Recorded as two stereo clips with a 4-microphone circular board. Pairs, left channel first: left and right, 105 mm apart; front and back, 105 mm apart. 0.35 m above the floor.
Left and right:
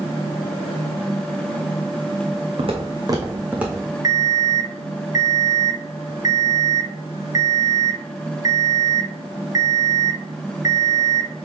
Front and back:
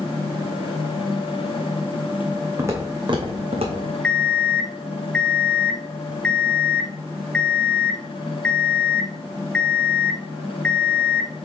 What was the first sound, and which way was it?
Footsteps, 115° right.